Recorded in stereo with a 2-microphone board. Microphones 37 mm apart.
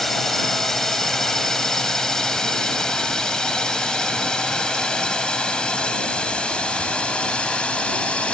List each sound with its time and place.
0.0 s a drone: 10° left (ahead or behind); by 8.3 s 30° left (ahead or behind)